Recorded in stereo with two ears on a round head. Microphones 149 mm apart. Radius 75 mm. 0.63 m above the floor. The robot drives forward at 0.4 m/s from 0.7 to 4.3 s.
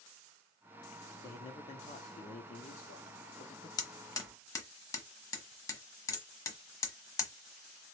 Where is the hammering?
25° left (ahead or behind), 0.9 m; by 7.3 s 20° left (ahead or behind), 1.1 m.